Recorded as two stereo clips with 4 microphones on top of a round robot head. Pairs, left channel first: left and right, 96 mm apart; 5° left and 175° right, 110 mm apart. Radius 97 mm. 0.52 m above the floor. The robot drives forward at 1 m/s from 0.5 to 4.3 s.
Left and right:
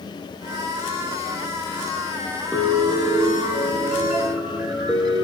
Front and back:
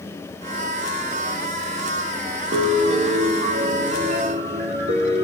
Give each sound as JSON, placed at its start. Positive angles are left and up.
{"t": 2.5, "sound": "a piano", "azimuth_deg": 170, "distance_m": 6.0}